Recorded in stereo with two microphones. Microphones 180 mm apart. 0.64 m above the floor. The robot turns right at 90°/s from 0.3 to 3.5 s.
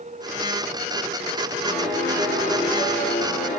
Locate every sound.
1.6 s a piano: 110° right, 1.5 m; by 3.6 s 65° left, 1.5 m